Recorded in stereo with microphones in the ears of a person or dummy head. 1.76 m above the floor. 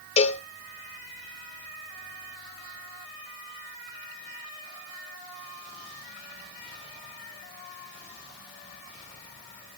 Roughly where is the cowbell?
Left.